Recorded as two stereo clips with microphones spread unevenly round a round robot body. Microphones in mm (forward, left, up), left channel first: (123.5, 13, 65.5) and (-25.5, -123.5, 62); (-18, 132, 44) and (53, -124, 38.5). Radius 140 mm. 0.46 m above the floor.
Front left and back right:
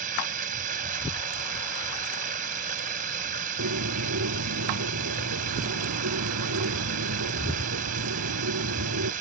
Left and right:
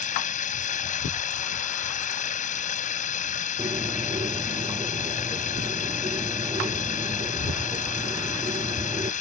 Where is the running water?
170° left.